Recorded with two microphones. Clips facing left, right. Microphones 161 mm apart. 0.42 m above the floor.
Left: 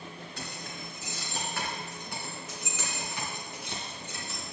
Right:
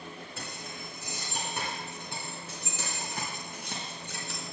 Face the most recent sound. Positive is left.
turn(degrees=-60)  # may be behind; listen again after turning